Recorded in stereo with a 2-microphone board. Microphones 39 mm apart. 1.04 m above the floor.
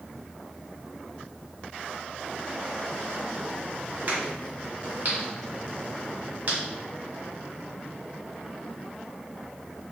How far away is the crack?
About 1.8 m.